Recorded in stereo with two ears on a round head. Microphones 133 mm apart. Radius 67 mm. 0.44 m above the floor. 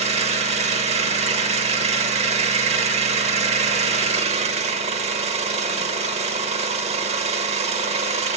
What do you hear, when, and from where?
0.0 s an engine running: 45° right (ahead or behind), 0.8 m